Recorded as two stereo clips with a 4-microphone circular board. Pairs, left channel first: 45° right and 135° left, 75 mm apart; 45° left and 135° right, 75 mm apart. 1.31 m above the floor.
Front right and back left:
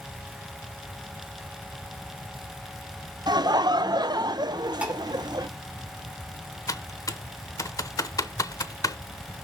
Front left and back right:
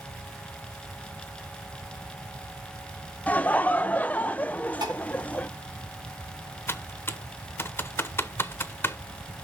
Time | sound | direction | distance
3.3 | laughter | 115° left | 0.6 m
4.8 | dishes clattering | 155° right | 2.5 m
6.7 | typing on a keyboard | 10° right | 0.8 m